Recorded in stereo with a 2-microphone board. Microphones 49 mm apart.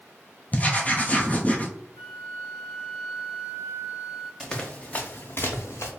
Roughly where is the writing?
Left.